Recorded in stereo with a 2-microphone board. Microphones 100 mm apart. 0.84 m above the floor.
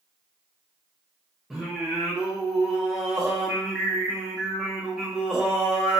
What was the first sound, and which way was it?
Singing, 5° right (ahead or behind).